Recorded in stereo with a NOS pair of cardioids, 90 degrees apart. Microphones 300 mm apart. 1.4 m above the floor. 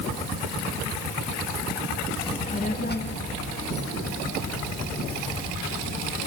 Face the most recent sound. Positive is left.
turn(degrees=70)